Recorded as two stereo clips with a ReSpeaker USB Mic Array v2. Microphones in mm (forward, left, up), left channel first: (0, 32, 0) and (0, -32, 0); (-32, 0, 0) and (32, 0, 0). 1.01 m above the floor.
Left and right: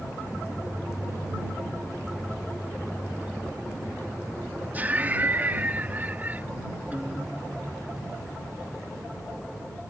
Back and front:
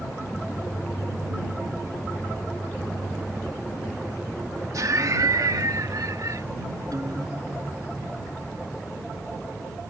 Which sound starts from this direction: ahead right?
Laughter, at 4.7 s.